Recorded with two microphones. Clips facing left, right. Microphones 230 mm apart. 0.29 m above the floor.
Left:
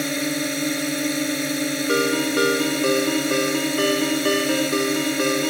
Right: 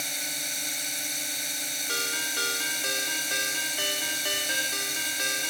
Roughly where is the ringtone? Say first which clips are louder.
Left 19 dB; left.